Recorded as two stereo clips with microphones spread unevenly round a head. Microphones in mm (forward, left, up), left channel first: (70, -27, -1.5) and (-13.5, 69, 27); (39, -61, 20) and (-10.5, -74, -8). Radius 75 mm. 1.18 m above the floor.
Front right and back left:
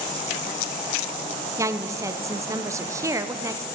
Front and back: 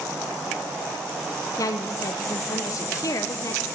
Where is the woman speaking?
60° left, 0.6 m.